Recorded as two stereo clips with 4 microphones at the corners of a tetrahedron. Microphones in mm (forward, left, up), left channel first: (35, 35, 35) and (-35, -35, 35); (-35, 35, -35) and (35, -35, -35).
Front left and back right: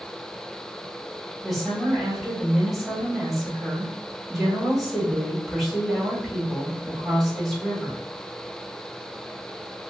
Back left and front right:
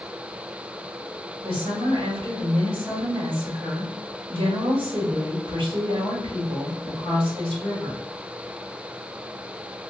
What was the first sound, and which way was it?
A woman speaking, 45° right.